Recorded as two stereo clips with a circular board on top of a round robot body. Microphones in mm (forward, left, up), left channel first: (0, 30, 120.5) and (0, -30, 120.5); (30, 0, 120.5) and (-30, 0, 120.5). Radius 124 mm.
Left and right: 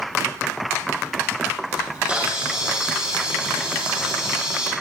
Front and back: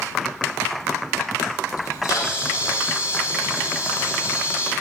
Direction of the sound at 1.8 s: 20° right.